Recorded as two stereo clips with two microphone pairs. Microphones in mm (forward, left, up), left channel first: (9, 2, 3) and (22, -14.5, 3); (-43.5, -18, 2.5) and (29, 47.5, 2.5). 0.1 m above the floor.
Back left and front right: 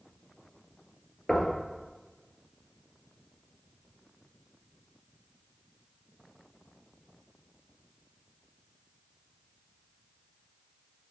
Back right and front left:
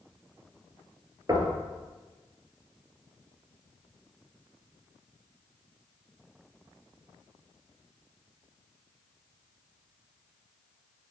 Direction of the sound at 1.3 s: 70° left.